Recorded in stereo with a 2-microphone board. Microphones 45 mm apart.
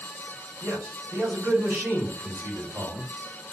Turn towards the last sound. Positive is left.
turn(degrees=-80)